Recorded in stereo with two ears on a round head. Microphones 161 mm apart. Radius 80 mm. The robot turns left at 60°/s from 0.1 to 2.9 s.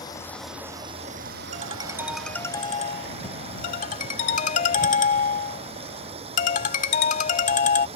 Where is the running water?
20° left; by 8.0 s 145° right.